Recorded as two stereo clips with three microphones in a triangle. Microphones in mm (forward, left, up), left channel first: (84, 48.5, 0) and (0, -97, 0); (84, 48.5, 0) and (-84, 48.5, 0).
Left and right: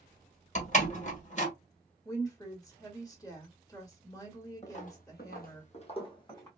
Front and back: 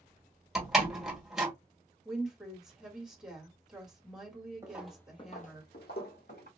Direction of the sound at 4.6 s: 105° left.